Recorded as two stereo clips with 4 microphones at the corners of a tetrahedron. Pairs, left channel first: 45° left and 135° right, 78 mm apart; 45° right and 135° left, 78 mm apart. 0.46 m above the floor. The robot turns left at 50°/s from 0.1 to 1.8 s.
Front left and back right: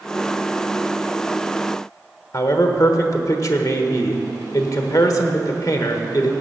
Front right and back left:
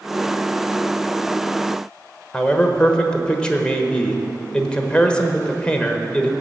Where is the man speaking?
25° left, 1.1 m.